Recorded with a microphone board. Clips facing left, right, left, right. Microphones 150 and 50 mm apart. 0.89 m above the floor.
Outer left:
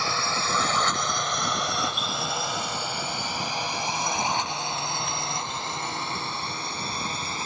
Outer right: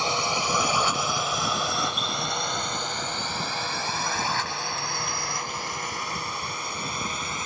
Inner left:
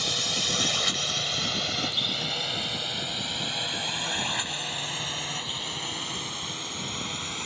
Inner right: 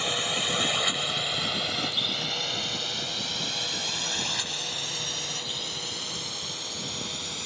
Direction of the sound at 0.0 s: 20° right (ahead or behind).